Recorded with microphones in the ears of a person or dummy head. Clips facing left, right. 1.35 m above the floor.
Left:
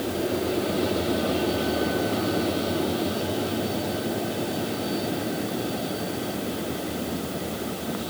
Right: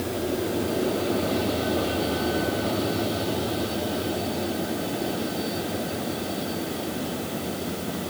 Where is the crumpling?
No crumpling in this recording.